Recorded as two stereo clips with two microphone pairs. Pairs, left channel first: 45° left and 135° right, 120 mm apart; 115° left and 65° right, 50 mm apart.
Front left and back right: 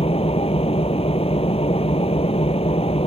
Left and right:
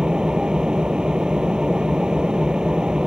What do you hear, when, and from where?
0.0 s an engine running: 10° left